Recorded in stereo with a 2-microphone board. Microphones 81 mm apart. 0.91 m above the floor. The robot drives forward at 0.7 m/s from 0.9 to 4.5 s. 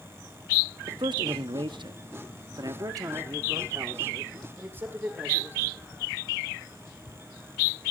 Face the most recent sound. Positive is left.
turn(degrees=-25)  # may be behind; listen again after turning